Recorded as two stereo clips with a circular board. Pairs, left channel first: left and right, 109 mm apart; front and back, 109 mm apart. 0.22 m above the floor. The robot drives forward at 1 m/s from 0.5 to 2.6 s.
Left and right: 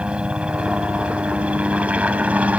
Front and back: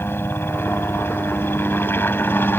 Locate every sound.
0.0 s a helicopter: 25° right; by 2.6 s 35° right